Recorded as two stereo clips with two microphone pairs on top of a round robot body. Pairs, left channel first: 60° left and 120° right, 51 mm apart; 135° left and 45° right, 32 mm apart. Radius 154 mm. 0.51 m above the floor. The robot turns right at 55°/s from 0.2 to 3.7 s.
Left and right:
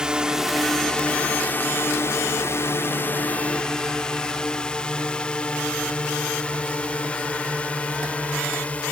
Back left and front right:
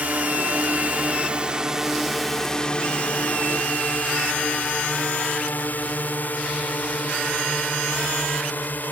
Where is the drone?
45° right; by 8.9 s 125° left.